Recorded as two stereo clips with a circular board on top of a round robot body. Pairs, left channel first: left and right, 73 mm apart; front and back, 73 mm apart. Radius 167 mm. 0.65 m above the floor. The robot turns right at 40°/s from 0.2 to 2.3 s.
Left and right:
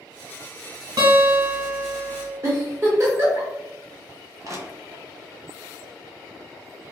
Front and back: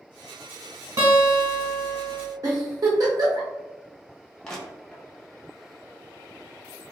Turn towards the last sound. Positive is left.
turn(degrees=-80)